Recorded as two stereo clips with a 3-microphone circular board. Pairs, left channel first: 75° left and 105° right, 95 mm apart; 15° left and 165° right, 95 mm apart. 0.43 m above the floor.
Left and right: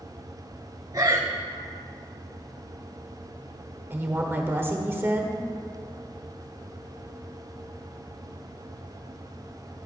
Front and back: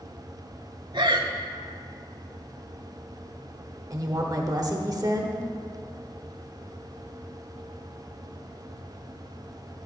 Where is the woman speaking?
160° right, 0.9 m.